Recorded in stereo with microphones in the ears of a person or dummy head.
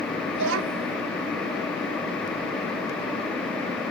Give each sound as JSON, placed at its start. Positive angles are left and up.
{"t": 0.3, "sound": "a child speaking", "side_deg": -65}